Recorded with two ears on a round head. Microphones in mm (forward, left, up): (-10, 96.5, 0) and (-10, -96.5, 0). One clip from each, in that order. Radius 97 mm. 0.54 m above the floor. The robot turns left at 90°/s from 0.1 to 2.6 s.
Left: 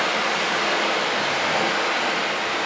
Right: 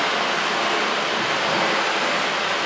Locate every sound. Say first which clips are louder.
0.0 s running water: right 1 dB; 145° left, 0.9 m; by 2.7 s 80° right, 0.9 m